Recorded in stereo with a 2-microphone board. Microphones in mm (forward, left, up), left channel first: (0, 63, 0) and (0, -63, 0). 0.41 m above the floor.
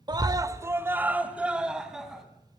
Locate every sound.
0.1 s a scream: 35° right (ahead or behind), 1.2 m; by 2.2 s 5° right (ahead or behind), 3.5 m